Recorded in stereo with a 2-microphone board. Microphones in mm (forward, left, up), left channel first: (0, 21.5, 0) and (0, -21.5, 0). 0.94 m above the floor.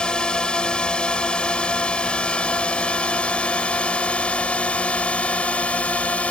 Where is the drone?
20° left (ahead or behind); by 6.3 s 30° left (ahead or behind).